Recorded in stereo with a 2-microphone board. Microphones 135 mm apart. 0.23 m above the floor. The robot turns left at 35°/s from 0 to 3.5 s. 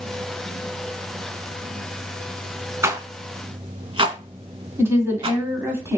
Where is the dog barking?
I don't hear a dog barking.